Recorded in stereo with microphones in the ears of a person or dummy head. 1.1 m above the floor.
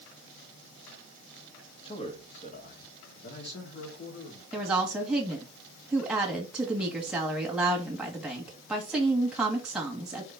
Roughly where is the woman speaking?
Centre.